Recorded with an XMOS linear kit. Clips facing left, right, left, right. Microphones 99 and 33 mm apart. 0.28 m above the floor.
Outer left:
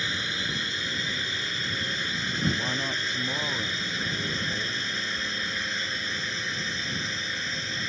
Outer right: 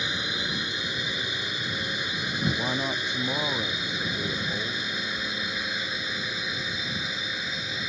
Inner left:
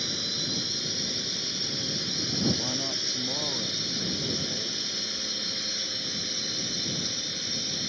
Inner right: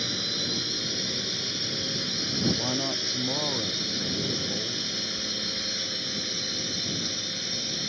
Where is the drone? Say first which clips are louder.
Outer right 1 dB, inner right 2 dB; 15° right (ahead or behind); by 7.9 s 10° right (ahead or behind).